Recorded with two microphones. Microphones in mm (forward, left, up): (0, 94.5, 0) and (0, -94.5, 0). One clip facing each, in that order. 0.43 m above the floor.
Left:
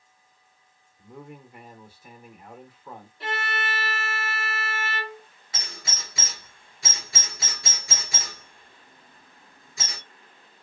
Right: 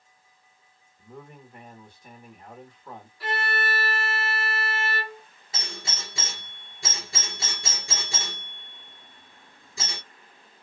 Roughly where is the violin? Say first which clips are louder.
Right 2 dB; left.